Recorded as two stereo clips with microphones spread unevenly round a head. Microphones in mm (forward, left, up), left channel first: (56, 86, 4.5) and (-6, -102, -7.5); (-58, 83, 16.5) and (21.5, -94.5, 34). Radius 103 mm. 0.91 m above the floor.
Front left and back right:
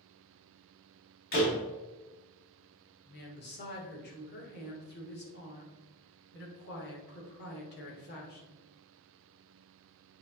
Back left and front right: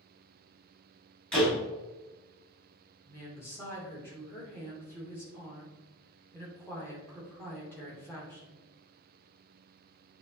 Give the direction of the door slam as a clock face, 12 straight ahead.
11 o'clock.